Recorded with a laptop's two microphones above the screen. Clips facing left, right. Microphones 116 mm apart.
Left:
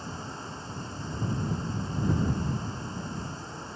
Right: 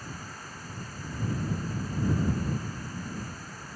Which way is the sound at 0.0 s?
25° left (ahead or behind).